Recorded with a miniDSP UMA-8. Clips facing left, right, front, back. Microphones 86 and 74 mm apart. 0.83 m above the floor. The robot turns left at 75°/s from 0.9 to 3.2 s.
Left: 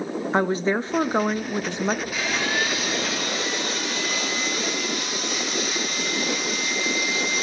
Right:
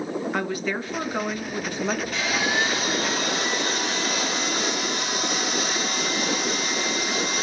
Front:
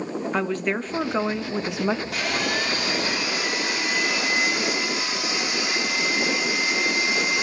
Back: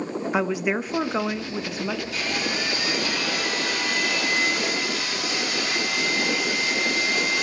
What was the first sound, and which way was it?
A woman speaking, 105° left.